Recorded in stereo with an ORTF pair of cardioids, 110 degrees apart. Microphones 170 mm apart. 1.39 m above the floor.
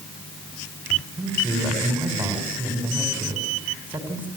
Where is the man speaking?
10° right, 5 m.